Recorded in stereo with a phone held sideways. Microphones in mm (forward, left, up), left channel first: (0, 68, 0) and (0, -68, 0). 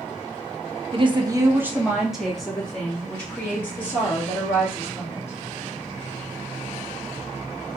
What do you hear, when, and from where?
0.9 s a woman speaking: 40° right (ahead or behind), 0.6 m; by 5.4 s 20° left (ahead or behind), 3 m